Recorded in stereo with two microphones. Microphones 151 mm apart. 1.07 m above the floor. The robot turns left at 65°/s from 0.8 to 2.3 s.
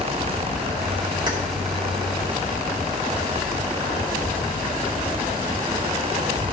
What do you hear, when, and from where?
1.3 s keys jangling: 30° right (ahead or behind), 2.5 m; by 1.4 s 20° right (ahead or behind), 2.5 m